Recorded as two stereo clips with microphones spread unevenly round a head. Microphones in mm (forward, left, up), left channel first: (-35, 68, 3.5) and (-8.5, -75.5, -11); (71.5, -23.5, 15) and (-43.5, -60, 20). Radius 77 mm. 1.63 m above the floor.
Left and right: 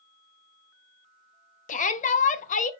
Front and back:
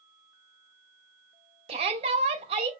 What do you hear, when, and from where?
1.7 s a shout: 145° left, 0.5 m